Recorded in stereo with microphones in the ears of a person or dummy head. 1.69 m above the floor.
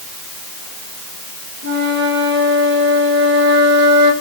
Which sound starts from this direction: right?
A flute, at 1.6 s.